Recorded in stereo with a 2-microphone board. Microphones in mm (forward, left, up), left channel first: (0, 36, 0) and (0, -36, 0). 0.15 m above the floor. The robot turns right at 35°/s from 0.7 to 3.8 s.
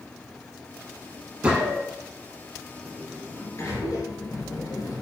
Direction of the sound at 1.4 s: 15° right (ahead or behind).